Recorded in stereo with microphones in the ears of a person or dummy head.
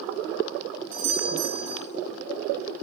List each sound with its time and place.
0.9 s a doorbell: 85° right, 5 m